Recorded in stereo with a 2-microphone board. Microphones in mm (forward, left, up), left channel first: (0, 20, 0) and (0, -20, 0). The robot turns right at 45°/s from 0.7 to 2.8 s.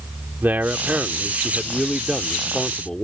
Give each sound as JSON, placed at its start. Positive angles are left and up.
{"t": 0.4, "sound": "a man speaking", "azimuth_deg": -70}